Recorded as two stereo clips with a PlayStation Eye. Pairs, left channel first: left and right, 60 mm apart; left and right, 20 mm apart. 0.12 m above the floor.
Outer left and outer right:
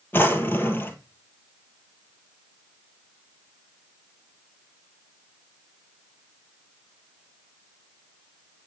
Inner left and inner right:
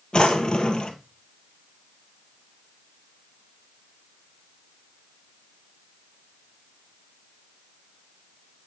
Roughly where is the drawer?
Left.